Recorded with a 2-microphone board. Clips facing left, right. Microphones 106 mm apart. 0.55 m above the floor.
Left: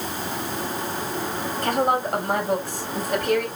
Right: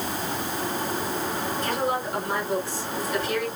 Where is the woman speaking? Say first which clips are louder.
Left 7 dB; 65° left (ahead or behind), 4 m.